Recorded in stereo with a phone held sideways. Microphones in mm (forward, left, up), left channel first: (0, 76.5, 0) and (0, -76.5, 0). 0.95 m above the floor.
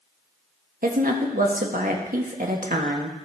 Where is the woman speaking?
65° right (ahead or behind), 1.4 m.